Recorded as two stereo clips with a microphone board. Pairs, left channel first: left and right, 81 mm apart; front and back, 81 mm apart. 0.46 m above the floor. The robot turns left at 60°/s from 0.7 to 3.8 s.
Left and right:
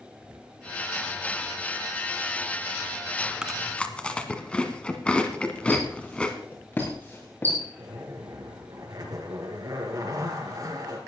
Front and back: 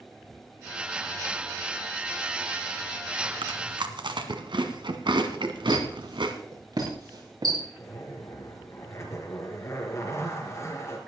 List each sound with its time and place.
3.4 s chewing: 170° right, 1.4 m; by 6.3 s 165° left, 1.4 m
5.7 s a squeak: 155° left, 4.5 m
7.8 s a zipper: 50° right, 3 m